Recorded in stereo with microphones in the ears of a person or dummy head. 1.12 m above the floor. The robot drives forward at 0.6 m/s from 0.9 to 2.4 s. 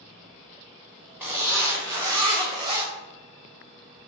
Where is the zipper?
15° right (ahead or behind), 1.2 m; by 2.9 s 25° right (ahead or behind), 0.6 m.